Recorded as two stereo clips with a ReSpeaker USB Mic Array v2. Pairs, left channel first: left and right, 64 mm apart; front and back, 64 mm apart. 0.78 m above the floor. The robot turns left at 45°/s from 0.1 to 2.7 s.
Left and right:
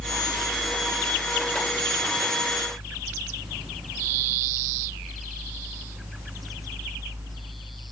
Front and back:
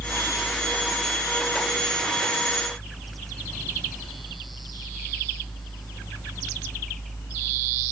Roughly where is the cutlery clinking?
No cutlery clinking in this recording.